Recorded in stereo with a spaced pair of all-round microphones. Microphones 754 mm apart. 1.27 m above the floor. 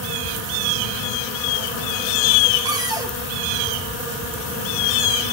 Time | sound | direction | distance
2.6 | a cupboard door | 5° right (ahead or behind) | 1.1 m